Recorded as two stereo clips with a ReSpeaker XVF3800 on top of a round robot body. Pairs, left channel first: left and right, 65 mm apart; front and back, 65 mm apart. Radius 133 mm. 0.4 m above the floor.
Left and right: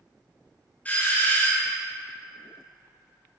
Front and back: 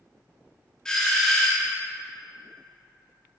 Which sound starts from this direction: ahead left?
A doorbell, at 0.8 s.